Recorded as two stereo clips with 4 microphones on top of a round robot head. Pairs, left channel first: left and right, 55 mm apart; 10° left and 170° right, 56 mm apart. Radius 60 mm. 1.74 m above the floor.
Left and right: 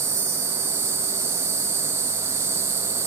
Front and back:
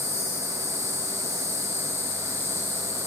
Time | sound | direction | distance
0.0 | an insect | 45° right | 1.1 m